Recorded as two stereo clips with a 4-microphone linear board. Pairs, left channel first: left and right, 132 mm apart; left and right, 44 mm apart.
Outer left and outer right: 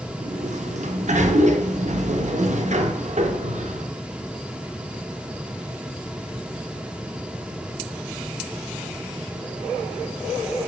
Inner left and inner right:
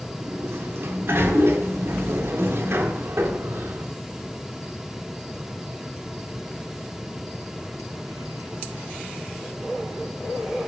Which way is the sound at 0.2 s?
60° right (ahead or behind).